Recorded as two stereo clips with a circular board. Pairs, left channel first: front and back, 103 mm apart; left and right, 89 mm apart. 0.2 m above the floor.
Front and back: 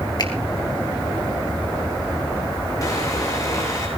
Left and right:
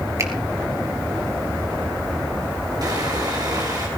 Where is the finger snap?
40° right, 3 m.